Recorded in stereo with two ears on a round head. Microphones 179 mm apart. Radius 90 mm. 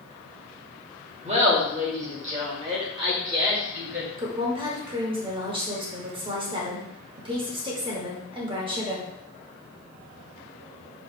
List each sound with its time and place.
1.2 s laughter: 30° right (ahead or behind), 1.3 m; by 4.1 s 20° right (ahead or behind), 2.0 m
4.2 s a woman speaking: 25° right (ahead or behind), 1.1 m